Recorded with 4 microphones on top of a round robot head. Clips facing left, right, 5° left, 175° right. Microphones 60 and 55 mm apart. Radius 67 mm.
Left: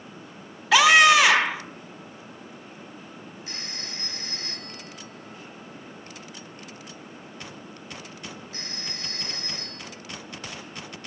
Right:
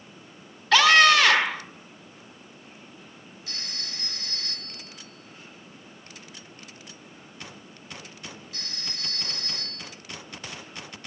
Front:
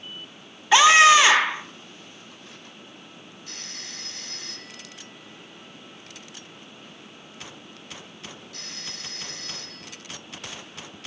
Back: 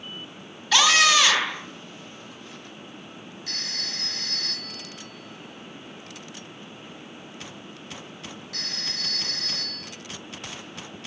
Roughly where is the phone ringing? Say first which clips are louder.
Even, back 6 dB; behind.